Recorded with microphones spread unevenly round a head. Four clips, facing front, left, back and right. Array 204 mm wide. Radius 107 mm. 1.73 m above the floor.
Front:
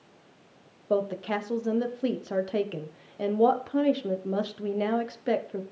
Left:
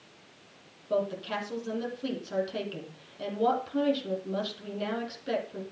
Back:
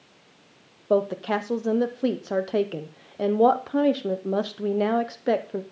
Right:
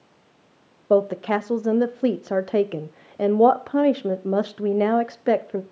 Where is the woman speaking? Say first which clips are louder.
Right 11 dB, back 4 dB; 115° right, 1.0 m.